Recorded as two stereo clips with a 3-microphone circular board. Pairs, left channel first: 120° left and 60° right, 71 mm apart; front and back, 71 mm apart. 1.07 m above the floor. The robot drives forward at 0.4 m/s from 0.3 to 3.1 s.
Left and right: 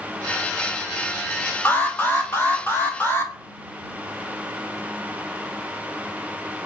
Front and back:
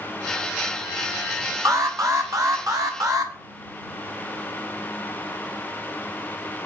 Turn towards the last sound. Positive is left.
turn(degrees=170)